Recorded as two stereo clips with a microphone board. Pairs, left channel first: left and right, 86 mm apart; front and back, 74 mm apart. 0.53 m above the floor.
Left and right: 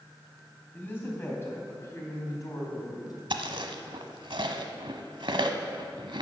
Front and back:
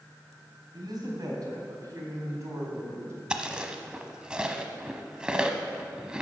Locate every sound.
0.7 s a woman speaking: 155° left, 4 m; by 3.2 s 130° left, 4 m
3.3 s chewing: 100° right, 1.0 m